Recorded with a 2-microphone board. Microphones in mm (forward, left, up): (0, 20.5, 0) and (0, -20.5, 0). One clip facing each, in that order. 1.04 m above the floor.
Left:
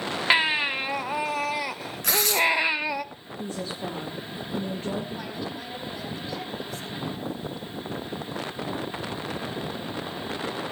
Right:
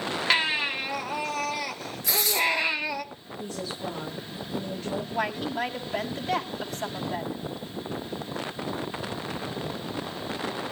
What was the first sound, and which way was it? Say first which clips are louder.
A baby crying: left 3 dB; 15° left (ahead or behind).